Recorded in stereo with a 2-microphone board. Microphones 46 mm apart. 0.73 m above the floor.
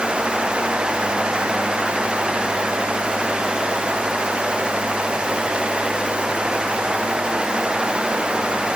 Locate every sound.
Only background noise.